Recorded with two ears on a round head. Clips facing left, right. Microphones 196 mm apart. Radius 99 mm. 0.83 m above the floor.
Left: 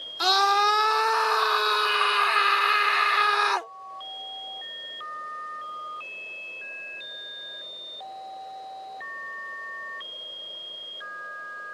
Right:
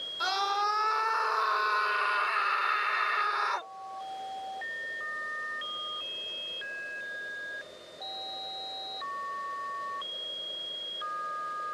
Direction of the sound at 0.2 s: 75° left (ahead or behind).